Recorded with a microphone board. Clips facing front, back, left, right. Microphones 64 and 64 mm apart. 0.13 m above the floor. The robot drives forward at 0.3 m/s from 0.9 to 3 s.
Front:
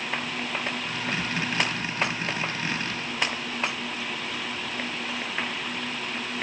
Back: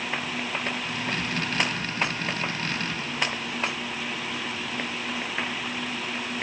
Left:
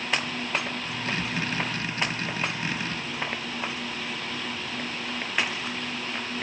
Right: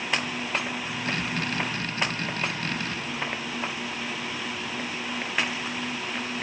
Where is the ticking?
No ticking in this recording.